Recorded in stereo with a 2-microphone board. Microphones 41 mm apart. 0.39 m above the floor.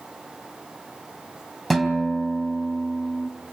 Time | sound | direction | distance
1.7 | a guitar | 5° left (ahead or behind) | 3.5 m